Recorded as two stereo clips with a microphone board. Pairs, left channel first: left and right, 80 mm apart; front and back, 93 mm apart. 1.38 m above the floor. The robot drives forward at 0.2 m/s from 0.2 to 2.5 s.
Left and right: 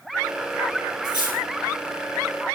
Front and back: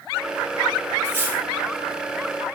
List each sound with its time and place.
1.0 s cutlery clinking: 110° left, 5 m; by 1.4 s 115° left, 5 m